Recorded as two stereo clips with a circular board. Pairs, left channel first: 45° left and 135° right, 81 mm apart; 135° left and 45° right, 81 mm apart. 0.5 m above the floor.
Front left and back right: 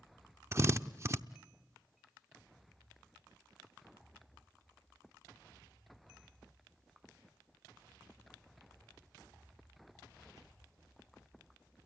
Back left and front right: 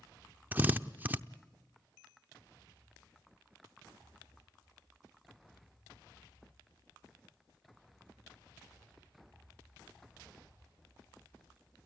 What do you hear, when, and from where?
0.5 s a drill: 100° right, 0.7 m